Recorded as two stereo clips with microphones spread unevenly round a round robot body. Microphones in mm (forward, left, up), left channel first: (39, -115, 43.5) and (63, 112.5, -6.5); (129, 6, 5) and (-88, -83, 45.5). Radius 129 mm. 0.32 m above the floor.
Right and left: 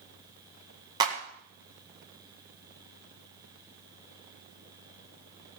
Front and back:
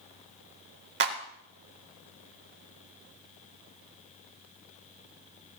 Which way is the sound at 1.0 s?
150° left.